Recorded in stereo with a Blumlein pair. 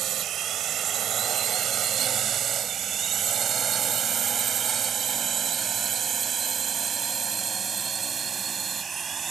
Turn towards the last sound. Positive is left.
turn(degrees=-15)